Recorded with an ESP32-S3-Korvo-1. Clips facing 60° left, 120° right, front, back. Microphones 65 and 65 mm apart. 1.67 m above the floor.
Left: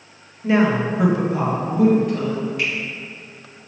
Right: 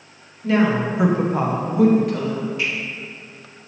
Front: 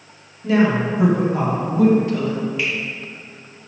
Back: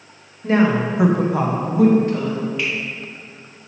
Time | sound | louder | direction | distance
0.4 | a woman speaking | left 1 dB, even | 125° left | 1.2 m
2.6 | a finger snap | left 1 dB, front 1 dB | 85° left | 2 m